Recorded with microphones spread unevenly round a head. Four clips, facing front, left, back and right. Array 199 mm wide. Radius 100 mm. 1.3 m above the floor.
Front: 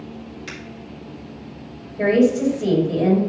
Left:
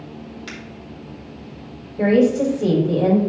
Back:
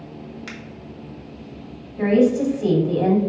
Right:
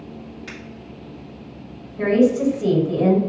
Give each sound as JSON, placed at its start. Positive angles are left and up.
{"t": 0.5, "sound": "a finger snap", "azimuth_deg": 125, "distance_m": 2.0}
{"t": 2.0, "sound": "a woman speaking", "azimuth_deg": 120, "distance_m": 3.5}